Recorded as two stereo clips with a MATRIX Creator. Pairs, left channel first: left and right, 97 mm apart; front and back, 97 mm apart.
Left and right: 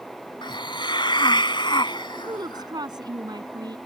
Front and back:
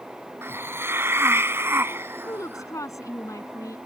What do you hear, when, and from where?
0.4 s a hiss: 115° left
2.2 s a woman speaking: 50° right